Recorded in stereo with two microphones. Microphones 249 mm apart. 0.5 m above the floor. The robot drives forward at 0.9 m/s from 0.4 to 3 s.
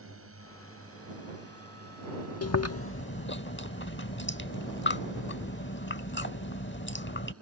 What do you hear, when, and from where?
0.0 s a drone: 60° right (ahead or behind); by 7.4 s 65° right (ahead or behind)
2.4 s chewing: 75° left (ahead or behind); by 7.3 s 50° left (ahead or behind)